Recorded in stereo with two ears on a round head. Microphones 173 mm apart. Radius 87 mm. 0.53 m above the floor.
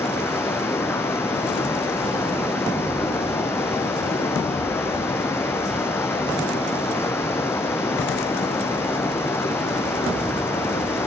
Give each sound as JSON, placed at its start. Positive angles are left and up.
{"t": 0.0, "sound": "running water", "side_deg": 15, "distance_m": 4.5}